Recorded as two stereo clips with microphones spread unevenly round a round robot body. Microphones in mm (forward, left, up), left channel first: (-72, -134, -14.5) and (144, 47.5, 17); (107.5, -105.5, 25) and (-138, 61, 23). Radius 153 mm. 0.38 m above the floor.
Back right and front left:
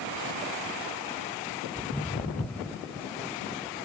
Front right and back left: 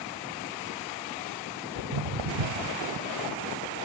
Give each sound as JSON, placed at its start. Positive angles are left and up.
{"t": 1.8, "sound": "footsteps", "azimuth_deg": 140, "distance_m": 1.9}